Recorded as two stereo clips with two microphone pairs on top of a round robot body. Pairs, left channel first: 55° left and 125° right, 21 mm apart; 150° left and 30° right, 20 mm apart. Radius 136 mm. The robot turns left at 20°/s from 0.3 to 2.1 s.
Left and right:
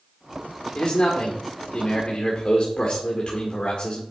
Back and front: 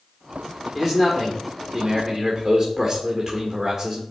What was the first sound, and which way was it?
A man speaking, 50° left.